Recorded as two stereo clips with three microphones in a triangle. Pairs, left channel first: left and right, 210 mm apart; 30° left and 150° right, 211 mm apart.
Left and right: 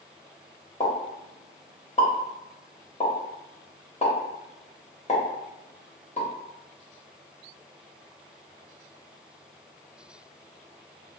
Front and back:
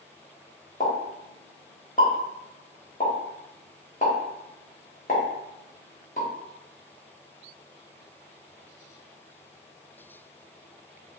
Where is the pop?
50° left, 0.9 m.